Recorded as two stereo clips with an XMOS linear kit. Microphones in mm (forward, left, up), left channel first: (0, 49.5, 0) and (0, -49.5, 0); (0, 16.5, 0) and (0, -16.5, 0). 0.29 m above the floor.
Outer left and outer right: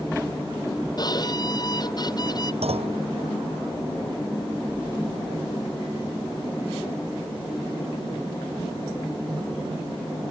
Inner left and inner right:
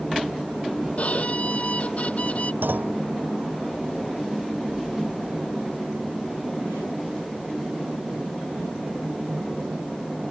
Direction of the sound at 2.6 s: 80° right.